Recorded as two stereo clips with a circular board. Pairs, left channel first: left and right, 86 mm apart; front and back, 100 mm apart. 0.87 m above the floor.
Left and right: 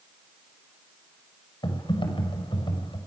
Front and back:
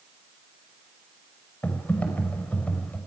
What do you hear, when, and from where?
1.6 s typing on a keyboard: 75° left, 5.5 m